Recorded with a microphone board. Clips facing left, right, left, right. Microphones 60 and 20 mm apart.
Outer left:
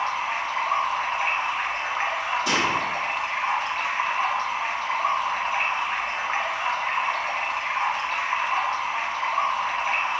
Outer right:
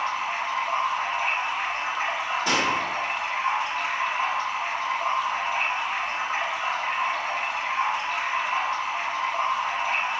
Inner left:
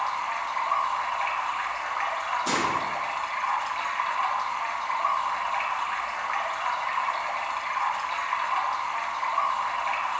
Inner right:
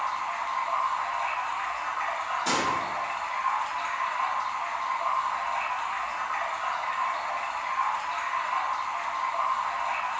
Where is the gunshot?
30° right (ahead or behind), 2.0 m.